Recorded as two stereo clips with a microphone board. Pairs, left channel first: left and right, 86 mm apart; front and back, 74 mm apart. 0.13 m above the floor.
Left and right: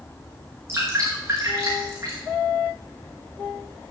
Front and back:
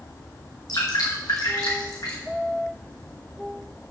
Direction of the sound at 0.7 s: 30° right.